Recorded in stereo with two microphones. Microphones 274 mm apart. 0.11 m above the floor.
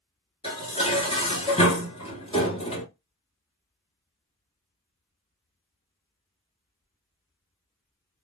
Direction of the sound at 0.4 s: 20° left (ahead or behind).